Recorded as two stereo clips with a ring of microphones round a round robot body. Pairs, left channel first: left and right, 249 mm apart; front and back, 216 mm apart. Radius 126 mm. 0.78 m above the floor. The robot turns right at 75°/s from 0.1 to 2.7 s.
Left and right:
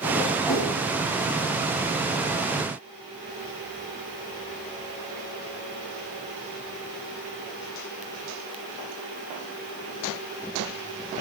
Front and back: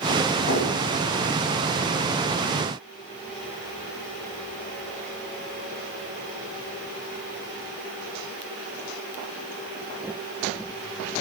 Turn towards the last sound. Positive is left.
turn(degrees=180)